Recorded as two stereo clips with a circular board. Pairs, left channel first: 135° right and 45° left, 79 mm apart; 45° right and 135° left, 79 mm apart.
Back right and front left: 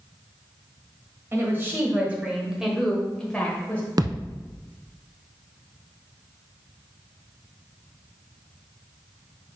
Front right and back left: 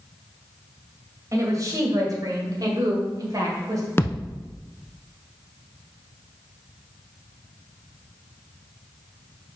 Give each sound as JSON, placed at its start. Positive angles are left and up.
{"t": 1.3, "sound": "a woman speaking", "azimuth_deg": 100, "distance_m": 1.9}
{"t": 4.0, "sound": "a thud", "azimuth_deg": 15, "distance_m": 0.7}